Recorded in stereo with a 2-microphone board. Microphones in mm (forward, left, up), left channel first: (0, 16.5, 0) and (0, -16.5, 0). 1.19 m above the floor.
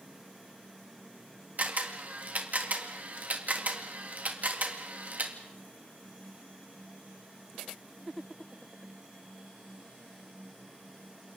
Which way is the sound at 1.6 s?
55° right (ahead or behind).